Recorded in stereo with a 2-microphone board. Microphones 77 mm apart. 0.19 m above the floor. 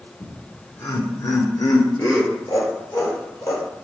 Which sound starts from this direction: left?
Laughter, at 0.2 s.